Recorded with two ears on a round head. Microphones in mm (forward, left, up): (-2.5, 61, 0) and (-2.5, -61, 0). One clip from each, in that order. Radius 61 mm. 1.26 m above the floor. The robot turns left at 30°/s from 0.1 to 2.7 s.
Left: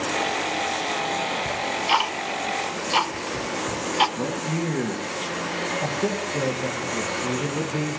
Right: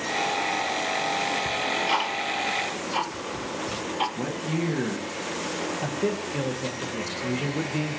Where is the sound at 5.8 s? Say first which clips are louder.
Left 2 dB; 45° right (ahead or behind), 1.2 m.